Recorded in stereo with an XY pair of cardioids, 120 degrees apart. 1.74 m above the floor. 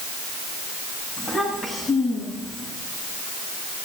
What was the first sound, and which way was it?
A child speaking, 25° left.